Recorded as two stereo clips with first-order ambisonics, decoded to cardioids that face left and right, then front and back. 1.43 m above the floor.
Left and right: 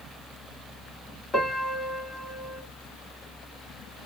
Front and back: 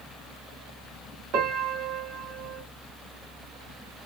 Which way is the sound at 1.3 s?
165° left.